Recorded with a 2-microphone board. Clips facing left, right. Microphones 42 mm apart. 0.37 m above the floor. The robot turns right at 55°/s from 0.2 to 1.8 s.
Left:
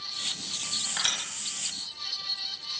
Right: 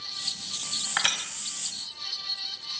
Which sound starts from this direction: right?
Crushing, at 1.0 s.